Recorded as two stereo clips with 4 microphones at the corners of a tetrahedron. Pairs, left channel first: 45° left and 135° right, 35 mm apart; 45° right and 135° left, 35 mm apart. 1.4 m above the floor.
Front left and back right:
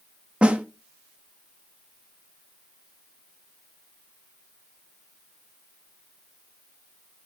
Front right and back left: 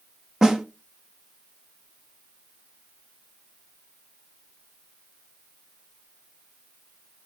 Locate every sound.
0.4 s a snare drum: 160° right, 0.9 m